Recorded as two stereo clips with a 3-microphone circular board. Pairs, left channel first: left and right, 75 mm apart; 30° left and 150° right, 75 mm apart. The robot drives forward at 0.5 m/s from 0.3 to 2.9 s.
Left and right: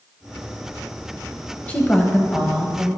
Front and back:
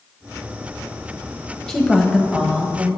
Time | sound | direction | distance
1.7 | a woman speaking | 105° left | 1.0 m